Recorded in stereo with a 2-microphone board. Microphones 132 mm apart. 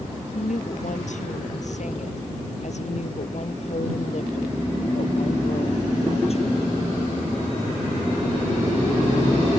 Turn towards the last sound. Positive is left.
turn(degrees=50)  # may be behind; listen again after turning